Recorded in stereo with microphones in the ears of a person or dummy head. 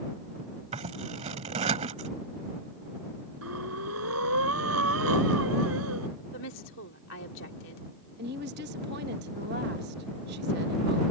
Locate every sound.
0.7 s scissors: 35° right (ahead or behind)
3.4 s breathing: 85° right
6.3 s a woman speaking: 65° left (ahead or behind)
8.2 s a woman speaking: 55° right (ahead or behind)